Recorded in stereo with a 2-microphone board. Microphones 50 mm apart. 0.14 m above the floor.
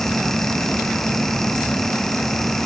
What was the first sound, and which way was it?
Only background noise.